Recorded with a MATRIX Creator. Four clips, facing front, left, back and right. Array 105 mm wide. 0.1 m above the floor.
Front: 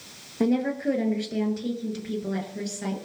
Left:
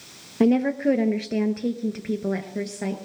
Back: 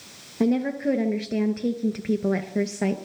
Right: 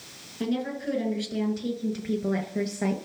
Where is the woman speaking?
90° left, 2.0 m; by 3.0 s 170° right, 1.8 m.